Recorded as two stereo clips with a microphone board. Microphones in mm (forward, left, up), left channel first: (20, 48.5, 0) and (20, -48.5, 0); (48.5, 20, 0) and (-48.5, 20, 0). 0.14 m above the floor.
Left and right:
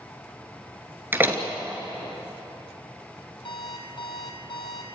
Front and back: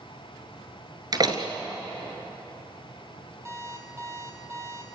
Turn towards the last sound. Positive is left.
turn(degrees=120)